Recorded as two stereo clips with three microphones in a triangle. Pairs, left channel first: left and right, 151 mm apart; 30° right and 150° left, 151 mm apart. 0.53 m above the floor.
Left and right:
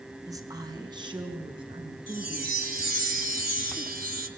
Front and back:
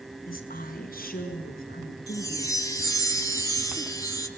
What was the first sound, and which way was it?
A woman speaking, 25° right.